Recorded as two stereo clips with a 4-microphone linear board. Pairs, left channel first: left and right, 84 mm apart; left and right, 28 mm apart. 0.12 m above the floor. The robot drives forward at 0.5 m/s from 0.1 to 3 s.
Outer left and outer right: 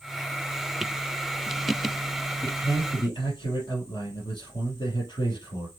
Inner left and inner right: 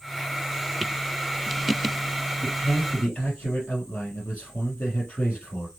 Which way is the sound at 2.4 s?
65° left (ahead or behind).